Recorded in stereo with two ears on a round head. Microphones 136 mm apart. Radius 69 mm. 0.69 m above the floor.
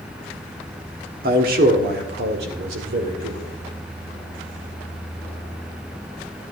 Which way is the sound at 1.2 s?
60° right (ahead or behind).